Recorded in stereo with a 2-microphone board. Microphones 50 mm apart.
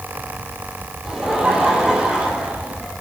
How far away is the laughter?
About 8 m.